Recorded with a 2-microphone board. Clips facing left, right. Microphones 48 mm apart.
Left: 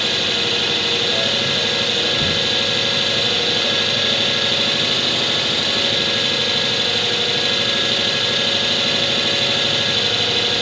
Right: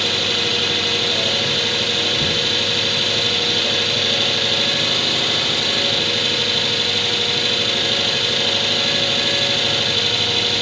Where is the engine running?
5° left (ahead or behind), 2.5 m.